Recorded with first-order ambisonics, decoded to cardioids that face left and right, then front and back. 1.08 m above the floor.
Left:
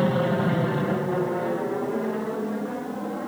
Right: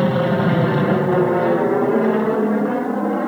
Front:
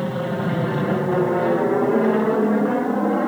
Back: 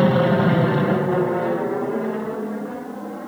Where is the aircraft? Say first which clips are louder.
Right 5 dB, back 7 dB; 150° right; by 3.3 s 40° right.